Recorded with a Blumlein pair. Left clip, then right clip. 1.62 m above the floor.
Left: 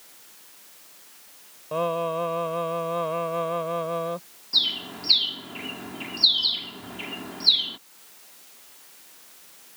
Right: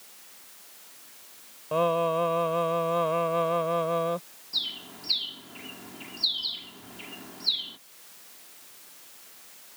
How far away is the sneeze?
No sneeze in this recording.